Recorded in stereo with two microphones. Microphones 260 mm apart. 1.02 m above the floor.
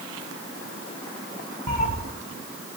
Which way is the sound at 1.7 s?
85° right.